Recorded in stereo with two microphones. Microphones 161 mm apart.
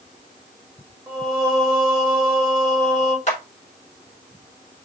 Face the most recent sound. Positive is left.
turn(degrees=45)  # may be behind; listen again after turning